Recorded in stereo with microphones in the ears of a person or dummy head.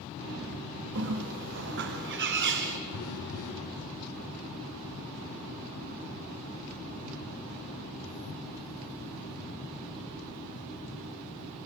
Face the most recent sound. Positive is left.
turn(degrees=75)  # may be behind; listen again after turning